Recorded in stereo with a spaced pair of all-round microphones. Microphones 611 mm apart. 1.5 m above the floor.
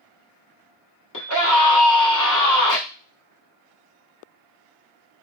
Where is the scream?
30° left (ahead or behind), 1.1 m.